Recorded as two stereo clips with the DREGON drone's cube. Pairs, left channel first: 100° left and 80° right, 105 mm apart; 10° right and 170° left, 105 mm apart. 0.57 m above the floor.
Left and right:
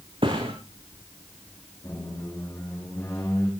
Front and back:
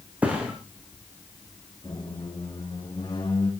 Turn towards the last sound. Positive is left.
turn(degrees=35)